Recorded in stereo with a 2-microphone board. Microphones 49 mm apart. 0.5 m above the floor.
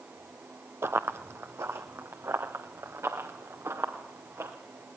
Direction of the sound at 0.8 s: 60° right (ahead or behind).